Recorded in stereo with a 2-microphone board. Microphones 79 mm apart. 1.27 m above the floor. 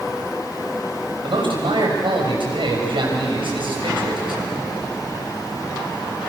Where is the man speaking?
85° right, 6.5 m.